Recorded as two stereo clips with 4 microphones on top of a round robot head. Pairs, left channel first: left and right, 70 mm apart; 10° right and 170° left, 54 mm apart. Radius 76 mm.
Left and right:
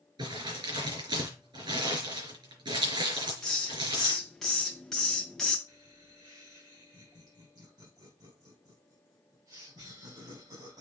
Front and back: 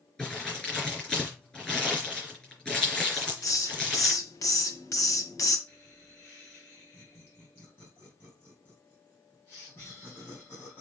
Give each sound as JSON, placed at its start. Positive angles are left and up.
{"t": 0.2, "sound": "crumpling", "azimuth_deg": -80, "distance_m": 4.0}
{"t": 3.1, "sound": "a hiss", "azimuth_deg": 5, "distance_m": 1.6}
{"t": 5.7, "sound": "laughter", "azimuth_deg": -65, "distance_m": 3.5}